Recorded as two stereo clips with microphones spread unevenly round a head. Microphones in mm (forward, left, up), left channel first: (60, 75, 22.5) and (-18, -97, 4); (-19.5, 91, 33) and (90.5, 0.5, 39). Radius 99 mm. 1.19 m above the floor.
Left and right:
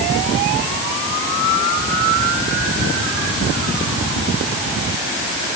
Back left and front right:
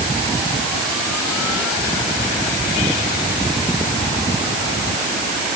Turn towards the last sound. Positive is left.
No sound to turn to.